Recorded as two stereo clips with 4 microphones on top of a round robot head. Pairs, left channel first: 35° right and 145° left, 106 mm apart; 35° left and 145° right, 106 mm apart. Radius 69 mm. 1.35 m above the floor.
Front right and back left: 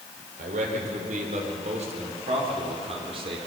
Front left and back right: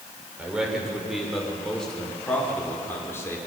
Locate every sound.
0.4 s a man speaking: 135° left, 5 m; by 3.4 s 100° left, 4 m